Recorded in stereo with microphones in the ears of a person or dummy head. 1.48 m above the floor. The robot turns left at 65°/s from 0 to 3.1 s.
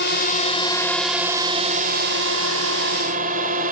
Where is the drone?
65° left (ahead or behind); by 3.7 s 45° right (ahead or behind).